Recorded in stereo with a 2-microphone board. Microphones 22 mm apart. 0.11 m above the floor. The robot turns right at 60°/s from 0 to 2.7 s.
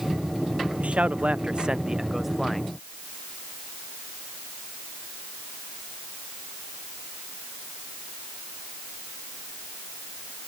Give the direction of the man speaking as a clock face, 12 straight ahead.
3 o'clock.